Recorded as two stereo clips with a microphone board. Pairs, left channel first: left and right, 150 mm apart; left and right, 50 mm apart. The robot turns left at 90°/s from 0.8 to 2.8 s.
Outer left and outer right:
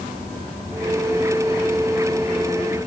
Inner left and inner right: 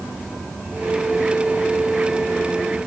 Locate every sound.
Only background noise.